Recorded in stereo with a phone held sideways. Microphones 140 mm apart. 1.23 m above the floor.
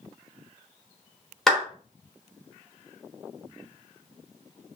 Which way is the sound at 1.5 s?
Centre (ahead or behind).